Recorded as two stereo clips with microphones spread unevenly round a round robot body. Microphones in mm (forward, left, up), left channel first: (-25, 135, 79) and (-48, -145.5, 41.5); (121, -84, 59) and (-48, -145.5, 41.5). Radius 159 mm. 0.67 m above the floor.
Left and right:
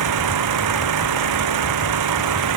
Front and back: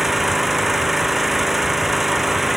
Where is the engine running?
70° right.